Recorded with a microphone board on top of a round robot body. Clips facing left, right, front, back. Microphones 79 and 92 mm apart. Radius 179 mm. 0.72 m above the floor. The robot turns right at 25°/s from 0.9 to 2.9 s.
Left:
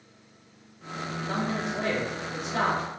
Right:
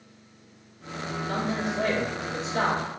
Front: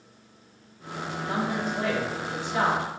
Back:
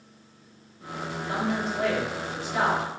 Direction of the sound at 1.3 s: 40° left.